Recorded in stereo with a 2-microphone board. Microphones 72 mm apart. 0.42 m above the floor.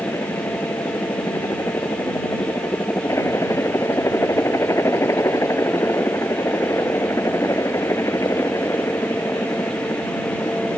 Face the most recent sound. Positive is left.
turn(degrees=45)  # may be behind; listen again after turning